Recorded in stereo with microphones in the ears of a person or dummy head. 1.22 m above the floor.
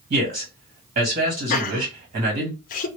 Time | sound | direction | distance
0.1 | a man speaking | 50° right (ahead or behind) | 1.8 m
1.5 | laughter | 40° left (ahead or behind) | 0.6 m